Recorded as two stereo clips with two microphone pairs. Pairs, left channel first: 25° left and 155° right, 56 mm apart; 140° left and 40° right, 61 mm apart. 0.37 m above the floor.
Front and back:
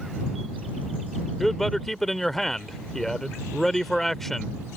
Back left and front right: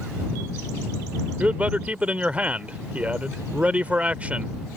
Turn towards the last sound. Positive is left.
turn(degrees=-55)